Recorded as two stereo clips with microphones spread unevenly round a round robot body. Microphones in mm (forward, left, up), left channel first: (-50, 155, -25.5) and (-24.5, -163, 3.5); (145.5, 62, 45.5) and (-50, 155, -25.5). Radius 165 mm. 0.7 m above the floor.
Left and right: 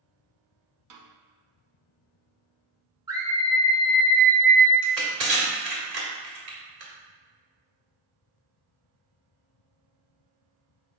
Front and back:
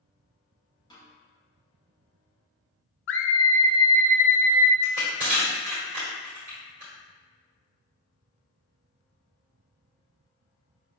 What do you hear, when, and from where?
0.9 s a snare drum: 110° right, 0.7 m
3.1 s a scream: 5° right, 0.6 m
4.8 s crushing: 130° right, 1.6 m